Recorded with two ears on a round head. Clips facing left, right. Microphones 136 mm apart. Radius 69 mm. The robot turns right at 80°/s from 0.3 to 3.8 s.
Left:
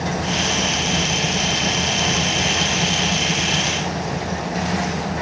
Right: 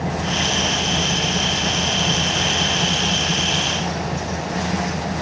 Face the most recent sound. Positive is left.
No sound to turn to.